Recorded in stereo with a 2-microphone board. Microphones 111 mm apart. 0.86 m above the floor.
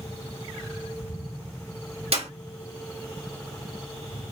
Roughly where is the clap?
Right.